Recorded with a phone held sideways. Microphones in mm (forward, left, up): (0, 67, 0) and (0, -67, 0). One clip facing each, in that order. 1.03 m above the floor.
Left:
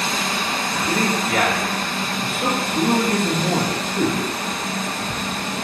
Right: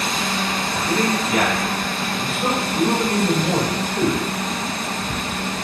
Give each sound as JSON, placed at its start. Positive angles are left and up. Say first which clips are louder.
{"t": 0.7, "sound": "a man speaking", "louder": "right 1 dB", "side_deg": 65, "distance_m": 1.9}